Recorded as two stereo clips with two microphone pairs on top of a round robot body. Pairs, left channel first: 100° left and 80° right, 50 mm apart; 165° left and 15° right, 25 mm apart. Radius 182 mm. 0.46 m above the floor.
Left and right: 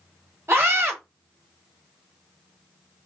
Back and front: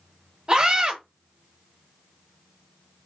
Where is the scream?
70° right, 1.8 m.